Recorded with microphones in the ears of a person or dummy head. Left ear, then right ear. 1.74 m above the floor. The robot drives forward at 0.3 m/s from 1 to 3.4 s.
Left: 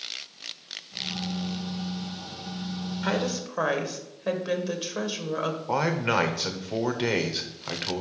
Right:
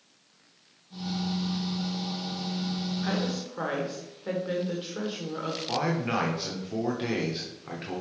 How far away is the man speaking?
About 0.7 m.